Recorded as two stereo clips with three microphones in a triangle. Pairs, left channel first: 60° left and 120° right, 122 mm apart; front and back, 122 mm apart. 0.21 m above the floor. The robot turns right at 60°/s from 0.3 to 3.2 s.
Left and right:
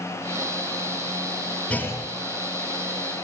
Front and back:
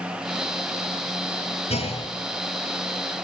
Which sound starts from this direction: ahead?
A clunk, at 1.7 s.